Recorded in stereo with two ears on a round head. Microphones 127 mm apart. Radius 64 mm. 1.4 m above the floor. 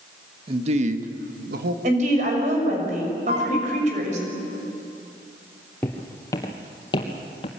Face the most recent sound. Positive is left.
turn(degrees=40)  # may be behind; listen again after turning